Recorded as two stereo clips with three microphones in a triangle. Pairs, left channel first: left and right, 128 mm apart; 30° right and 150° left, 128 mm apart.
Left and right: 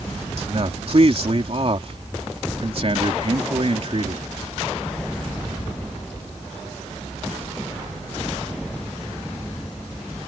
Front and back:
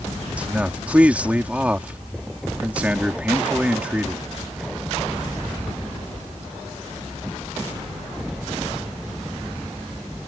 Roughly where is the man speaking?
Behind right.